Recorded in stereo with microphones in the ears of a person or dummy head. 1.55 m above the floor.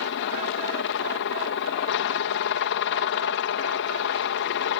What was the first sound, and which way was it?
A helicopter, 60° left (ahead or behind).